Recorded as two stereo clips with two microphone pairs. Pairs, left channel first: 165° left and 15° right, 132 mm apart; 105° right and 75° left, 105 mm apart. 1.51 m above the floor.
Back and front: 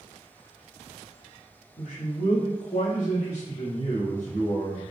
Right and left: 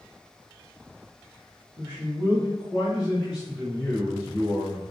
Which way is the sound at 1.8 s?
140° left.